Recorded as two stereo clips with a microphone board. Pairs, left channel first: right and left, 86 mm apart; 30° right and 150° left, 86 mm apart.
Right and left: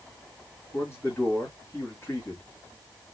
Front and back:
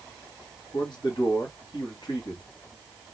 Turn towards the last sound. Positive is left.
turn(degrees=-30)